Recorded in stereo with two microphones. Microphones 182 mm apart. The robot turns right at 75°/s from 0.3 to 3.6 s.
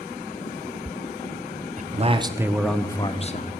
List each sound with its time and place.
1.8 s a man speaking: 65° right, 0.7 m; by 3.5 s 65° left, 0.7 m